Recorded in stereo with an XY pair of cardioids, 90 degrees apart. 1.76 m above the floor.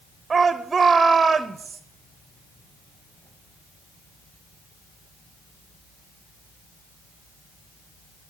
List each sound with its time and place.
0.3 s a shout: 35° right, 0.8 m